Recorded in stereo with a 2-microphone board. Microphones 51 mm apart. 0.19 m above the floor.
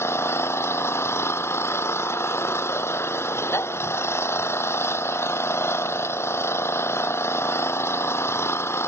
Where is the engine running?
60° left (ahead or behind).